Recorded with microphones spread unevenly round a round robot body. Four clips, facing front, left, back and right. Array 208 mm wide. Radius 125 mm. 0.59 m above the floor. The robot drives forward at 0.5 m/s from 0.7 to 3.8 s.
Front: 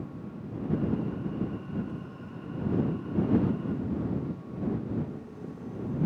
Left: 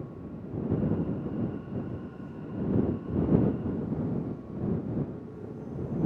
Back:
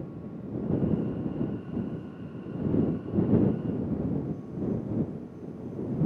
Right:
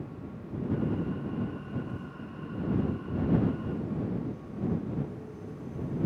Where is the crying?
No crying in this recording.